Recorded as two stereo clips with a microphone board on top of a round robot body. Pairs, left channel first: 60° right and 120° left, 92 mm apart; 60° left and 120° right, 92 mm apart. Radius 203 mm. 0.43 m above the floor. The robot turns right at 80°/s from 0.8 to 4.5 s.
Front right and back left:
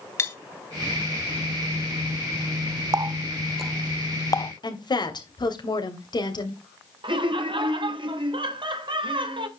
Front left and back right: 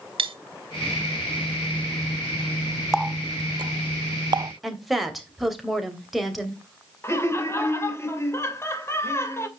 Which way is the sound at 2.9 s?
155° left.